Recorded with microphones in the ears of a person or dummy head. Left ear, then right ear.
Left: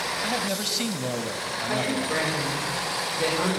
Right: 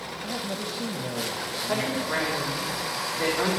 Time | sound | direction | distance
0.2 | a man speaking | 55° left (ahead or behind) | 1.2 m
1.7 | a woman speaking | 65° right (ahead or behind) | 5.5 m